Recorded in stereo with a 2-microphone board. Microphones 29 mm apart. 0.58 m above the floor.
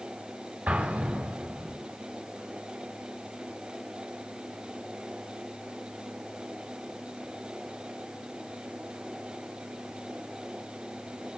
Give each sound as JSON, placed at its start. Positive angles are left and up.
{"t": 0.7, "sound": "an explosion", "side_deg": -70, "distance_m": 3.5}